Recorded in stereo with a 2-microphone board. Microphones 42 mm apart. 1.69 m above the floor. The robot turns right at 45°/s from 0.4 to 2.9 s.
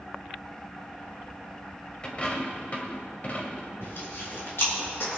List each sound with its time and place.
2.0 s a dropped coin: 45° left, 1.7 m; by 3.7 s 85° left, 1.7 m
3.8 s chewing: 75° left (ahead or behind), 3.5 m